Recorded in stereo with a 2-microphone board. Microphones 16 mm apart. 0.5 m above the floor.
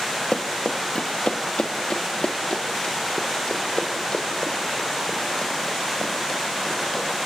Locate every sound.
0.3 s running footsteps: 75° left (ahead or behind), 3 m; by 7.0 s 25° left (ahead or behind), 10.5 m